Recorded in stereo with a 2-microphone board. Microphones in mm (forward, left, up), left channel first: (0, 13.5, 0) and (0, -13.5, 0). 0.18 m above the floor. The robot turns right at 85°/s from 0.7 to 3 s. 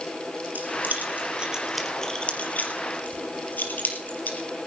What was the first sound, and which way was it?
Keys jangling, 70° right (ahead or behind).